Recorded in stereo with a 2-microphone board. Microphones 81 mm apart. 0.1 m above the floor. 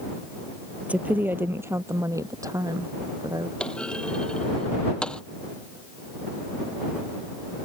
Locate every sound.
0.8 s a woman speaking: 15° right (ahead or behind); by 3.5 s 55° right (ahead or behind)
3.6 s a clunk: 10° left (ahead or behind)